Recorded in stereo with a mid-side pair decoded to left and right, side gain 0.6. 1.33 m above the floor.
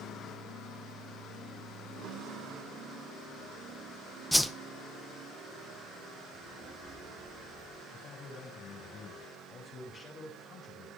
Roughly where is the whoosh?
Ahead.